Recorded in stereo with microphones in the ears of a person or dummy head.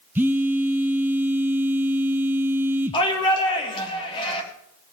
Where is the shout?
30° left (ahead or behind), 3.5 m.